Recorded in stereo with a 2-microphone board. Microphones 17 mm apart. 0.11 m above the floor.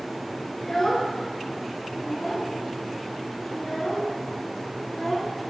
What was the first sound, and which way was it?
A child speaking, 25° left (ahead or behind).